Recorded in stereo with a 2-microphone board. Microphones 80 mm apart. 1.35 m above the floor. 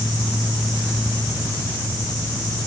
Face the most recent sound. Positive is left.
No sound to turn to.